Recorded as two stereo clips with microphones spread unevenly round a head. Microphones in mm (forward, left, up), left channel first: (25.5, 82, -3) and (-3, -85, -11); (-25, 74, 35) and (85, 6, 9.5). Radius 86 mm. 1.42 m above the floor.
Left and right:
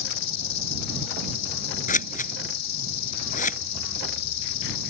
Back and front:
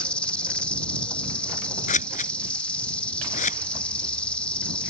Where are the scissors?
130° left.